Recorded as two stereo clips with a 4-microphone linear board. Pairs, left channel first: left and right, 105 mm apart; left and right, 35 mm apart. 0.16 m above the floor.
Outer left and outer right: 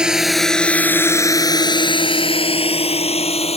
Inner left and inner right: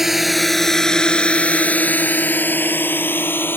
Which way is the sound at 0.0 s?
10° right (ahead or behind).